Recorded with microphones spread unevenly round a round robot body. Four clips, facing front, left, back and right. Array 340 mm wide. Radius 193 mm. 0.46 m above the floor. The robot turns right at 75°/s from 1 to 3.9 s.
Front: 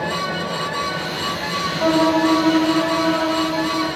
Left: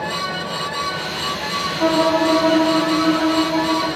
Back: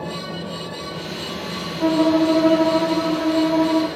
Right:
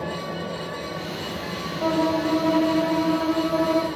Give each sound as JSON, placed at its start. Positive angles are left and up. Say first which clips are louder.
{"t": 1.8, "sound": "a violin", "louder": "left 6 dB, even", "azimuth_deg": 70, "distance_m": 7.0}